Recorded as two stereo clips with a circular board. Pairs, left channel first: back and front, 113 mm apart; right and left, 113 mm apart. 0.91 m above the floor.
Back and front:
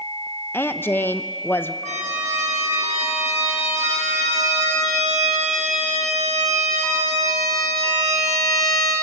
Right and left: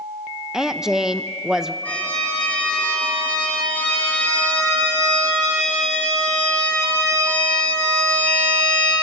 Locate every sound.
0.5 s a woman speaking: 170° left, 0.9 m
1.9 s a violin: 10° right, 6 m